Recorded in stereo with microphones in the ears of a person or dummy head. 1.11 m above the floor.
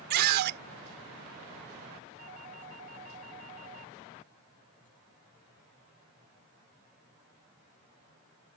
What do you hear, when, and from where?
0.1 s a scream: 55° right (ahead or behind)
2.2 s a doorbell: 45° right (ahead or behind)